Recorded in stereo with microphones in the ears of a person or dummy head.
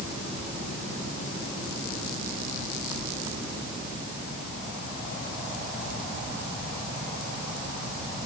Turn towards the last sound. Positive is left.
No sound to turn to.